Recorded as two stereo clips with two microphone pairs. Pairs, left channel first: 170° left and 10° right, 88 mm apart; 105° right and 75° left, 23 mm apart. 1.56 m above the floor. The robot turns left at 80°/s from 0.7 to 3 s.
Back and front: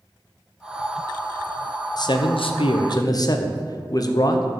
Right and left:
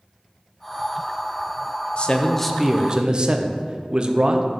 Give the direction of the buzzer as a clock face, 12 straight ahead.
I don't hear a buzzer.